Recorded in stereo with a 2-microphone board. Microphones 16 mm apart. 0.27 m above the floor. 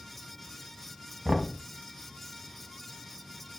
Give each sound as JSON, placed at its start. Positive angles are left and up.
{"t": 1.2, "sound": "knocking", "side_deg": -55, "distance_m": 1.4}